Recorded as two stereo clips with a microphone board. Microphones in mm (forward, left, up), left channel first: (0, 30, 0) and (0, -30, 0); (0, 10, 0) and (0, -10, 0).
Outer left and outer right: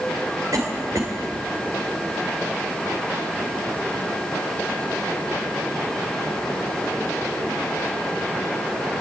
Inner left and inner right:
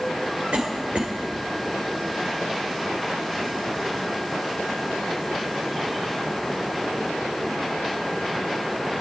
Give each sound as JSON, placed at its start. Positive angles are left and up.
{"t": 0.5, "sound": "a cough", "side_deg": -70, "distance_m": 3.5}